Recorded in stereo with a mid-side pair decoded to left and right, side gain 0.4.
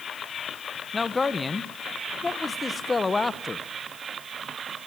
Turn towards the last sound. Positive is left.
turn(degrees=30)